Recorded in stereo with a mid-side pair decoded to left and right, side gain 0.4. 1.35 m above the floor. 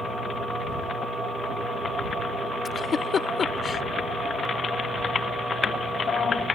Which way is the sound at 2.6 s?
50° left.